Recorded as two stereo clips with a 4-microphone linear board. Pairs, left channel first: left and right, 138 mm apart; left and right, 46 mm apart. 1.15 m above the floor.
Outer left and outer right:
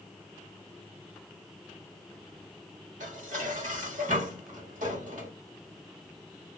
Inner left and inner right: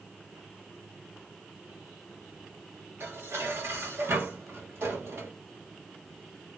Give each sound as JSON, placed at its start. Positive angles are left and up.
{"t": 3.0, "sound": "dishes clattering", "side_deg": -70, "distance_m": 1.2}